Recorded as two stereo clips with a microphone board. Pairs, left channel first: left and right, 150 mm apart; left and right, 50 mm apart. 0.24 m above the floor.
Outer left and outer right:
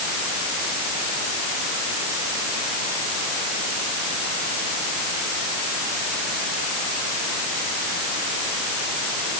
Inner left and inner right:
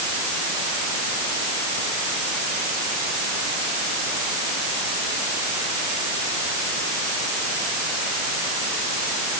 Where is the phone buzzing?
I don't hear a phone buzzing.